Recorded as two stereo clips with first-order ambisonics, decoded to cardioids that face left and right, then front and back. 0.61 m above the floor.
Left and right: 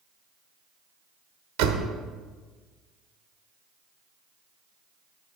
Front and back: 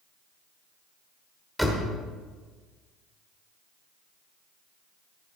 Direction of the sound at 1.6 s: 90° right.